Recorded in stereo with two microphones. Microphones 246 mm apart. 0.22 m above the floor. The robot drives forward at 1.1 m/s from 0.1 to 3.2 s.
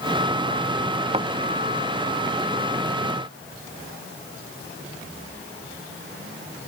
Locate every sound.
1.1 s a thud: 25° right (ahead or behind)